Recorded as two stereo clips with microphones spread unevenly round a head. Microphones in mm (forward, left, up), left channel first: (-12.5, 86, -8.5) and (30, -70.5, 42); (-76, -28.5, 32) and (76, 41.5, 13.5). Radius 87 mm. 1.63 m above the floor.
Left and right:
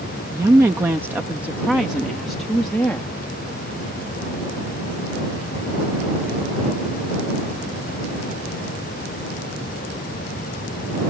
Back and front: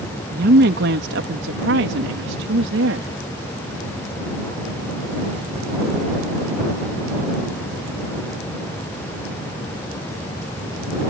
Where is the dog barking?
No dog barking in this recording.